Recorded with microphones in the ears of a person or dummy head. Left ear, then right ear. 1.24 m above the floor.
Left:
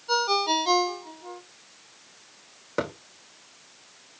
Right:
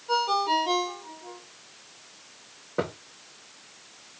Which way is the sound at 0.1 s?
30° left (ahead or behind).